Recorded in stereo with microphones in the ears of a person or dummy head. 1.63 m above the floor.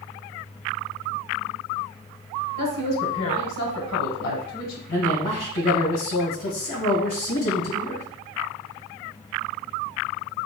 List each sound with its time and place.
2.6 s a woman speaking: 80° left, 1.0 m
4.9 s a man speaking: 70° left (ahead or behind), 1.5 m